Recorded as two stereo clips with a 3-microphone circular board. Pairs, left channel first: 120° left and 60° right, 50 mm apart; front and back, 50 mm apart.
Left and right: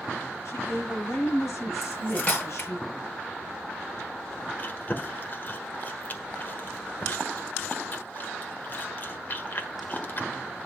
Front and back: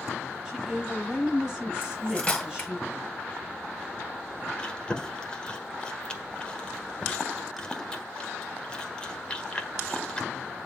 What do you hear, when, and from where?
0.5 s a woman speaking: 95° left, 6 m
1.8 s cutlery clinking: 65° left, 2.5 m
4.6 s chewing: 70° left, 1.4 m